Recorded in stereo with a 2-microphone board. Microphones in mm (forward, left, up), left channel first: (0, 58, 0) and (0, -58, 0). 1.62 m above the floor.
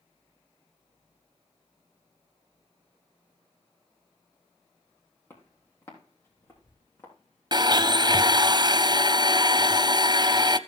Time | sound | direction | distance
5.3 | footsteps | 20° left (ahead or behind) | 3.5 m
7.5 | a blender | 40° right (ahead or behind) | 0.5 m